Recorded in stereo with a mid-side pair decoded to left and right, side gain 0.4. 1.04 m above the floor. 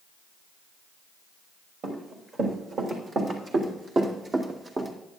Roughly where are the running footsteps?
Right.